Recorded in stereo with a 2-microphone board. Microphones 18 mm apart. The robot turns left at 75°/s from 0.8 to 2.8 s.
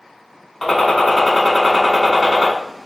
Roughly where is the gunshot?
Ahead left.